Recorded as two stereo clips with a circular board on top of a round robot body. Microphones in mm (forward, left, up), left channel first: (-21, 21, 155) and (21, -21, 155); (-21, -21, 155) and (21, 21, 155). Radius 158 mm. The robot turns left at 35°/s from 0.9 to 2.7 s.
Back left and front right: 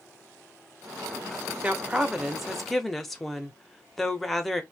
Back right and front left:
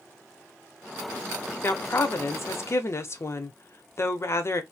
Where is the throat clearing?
I don't hear throat clearing.